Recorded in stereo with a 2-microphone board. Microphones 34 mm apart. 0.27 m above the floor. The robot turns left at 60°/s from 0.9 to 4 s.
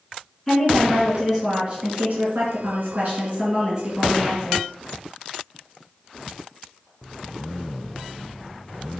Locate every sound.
0.5 s a woman speaking: 5° left, 3.5 m; by 4.6 s straight behind, 3.5 m